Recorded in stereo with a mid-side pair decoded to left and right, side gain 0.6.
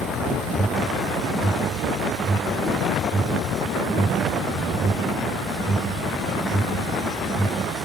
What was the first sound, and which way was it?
An alarm, 15° right.